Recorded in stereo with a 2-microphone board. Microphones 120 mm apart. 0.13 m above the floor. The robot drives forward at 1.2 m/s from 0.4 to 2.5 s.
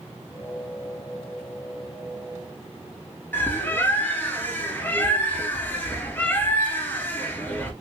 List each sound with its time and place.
3.3 s a bird: 15° left (ahead or behind), 1.6 m